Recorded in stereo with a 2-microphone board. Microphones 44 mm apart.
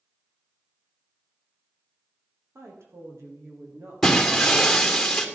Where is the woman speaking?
75° right (ahead or behind), 5.5 m.